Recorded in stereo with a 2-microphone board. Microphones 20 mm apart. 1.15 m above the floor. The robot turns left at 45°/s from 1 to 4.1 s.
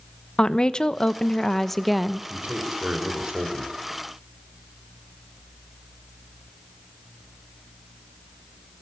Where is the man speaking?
70° right, 5 m; by 3.7 s 135° right, 5 m.